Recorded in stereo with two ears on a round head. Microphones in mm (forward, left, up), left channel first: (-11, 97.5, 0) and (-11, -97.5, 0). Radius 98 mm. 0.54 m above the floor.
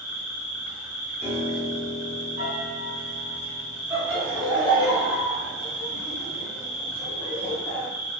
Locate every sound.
0.0 s an insect: 65° left (ahead or behind), 1.1 m
1.2 s a piano: 25° right (ahead or behind), 1.3 m
3.9 s laughter: 5° right (ahead or behind), 1.0 m